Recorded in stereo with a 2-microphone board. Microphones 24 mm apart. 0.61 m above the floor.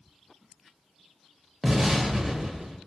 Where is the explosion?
15° right (ahead or behind), 0.5 m.